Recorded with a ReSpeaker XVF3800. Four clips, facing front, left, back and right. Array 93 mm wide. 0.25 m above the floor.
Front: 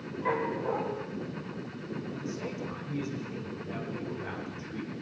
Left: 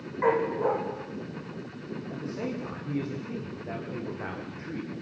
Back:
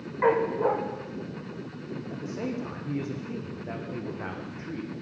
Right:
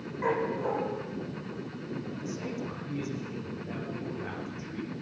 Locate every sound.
0.2 s a dog barking: 150° left, 6 m
2.1 s a man speaking: 140° left, 10 m